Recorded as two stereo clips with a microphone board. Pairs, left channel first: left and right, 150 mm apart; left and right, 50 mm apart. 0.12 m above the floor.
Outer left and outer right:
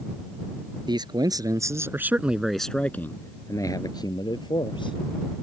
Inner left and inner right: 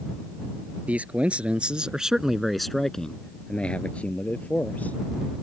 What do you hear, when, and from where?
0.9 s a man speaking: 30° right (ahead or behind); by 5.0 s 30° left (ahead or behind)